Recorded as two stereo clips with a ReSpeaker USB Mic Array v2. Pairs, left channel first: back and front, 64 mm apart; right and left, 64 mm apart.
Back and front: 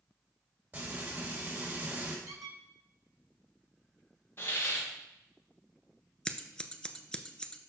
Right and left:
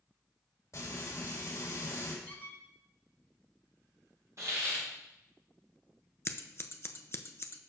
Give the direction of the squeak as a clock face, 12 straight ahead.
1 o'clock.